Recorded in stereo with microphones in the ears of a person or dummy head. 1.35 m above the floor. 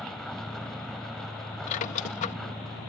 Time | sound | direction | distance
0.0 | a vehicle | 5° left (ahead or behind) | ?
1.7 | a squeak | 45° left (ahead or behind) | ?